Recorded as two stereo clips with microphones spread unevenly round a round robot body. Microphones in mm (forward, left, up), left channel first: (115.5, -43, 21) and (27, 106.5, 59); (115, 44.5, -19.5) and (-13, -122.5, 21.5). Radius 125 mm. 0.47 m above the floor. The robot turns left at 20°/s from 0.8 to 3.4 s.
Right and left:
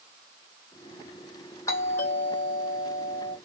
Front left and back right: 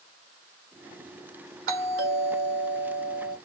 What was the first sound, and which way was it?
A doorbell, 120° right.